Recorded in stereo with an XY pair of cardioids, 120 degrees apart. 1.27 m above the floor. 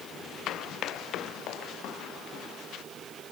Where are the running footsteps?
65° left.